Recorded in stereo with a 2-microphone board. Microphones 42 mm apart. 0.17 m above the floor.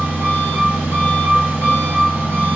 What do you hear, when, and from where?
0.0 s an engine running: 60° right (ahead or behind), 1.2 m